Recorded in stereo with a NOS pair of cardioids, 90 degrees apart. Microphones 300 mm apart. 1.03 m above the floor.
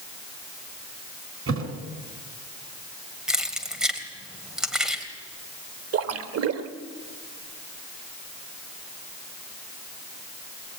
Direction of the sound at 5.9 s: 55° right.